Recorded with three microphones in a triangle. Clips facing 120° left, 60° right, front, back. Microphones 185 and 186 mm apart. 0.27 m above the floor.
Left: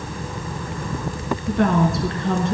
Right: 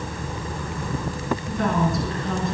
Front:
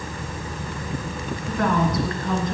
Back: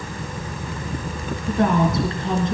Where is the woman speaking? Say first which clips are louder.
Left 6 dB, back 3 dB; 115° left, 2.5 m.